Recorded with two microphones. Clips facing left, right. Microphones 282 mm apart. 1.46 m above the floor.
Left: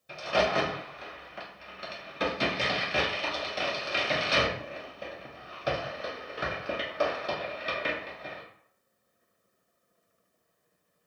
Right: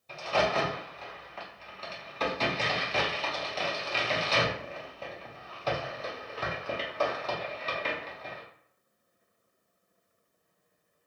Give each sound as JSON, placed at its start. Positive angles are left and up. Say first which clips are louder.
{"t": 0.1, "sound": "a crack", "louder": "left 1 dB", "side_deg": 15, "distance_m": 0.7}